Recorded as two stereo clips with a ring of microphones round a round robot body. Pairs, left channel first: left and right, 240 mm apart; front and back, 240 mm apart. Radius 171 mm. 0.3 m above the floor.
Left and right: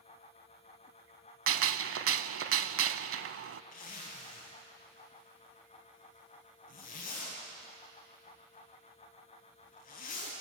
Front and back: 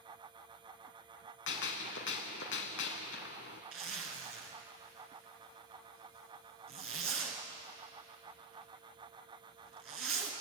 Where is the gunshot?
55° right, 0.7 m.